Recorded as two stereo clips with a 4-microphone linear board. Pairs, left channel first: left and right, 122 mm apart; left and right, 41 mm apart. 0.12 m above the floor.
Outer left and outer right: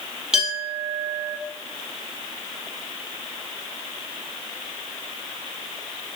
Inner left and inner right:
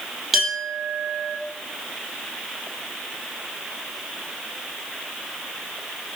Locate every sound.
0.3 s a clink: 5° right (ahead or behind), 3 m